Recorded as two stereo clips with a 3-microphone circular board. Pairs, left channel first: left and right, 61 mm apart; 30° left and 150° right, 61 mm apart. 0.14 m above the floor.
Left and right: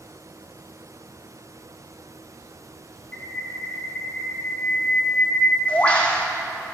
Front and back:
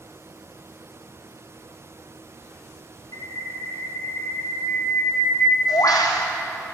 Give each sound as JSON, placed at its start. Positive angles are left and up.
{"t": 3.1, "sound": "a bird", "azimuth_deg": 20, "distance_m": 2.0}